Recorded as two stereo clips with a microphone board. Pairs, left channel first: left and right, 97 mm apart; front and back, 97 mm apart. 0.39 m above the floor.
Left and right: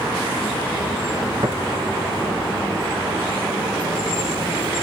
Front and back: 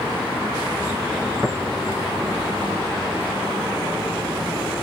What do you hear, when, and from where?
1.4 s tapping: 125° right, 4 m